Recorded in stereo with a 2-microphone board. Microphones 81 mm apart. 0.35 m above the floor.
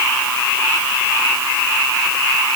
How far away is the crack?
No crack in this recording.